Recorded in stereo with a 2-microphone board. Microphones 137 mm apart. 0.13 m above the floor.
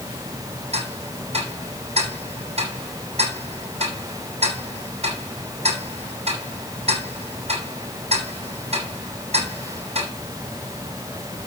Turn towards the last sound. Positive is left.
turn(degrees=-50)  # may be behind; listen again after turning